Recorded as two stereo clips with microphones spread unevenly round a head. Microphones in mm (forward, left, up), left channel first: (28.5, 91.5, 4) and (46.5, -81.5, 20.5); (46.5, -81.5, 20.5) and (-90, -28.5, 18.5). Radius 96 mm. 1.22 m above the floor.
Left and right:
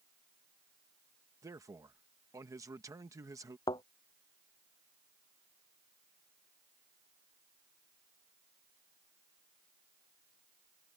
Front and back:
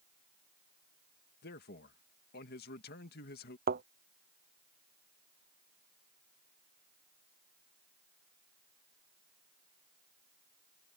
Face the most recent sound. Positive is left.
turn(degrees=170)